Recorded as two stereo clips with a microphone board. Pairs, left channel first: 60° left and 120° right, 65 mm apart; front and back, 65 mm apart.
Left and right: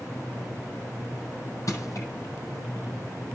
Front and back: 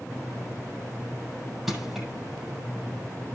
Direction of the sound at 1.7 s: 95° left.